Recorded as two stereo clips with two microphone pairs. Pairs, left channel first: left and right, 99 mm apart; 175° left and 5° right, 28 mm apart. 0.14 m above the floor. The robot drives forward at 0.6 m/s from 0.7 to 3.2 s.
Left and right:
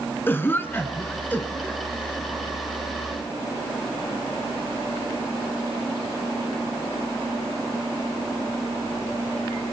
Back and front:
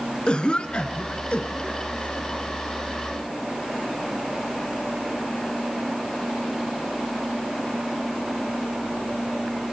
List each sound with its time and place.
0.3 s a cough: 145° left, 1.7 m; by 2.3 s 160° left, 2.5 m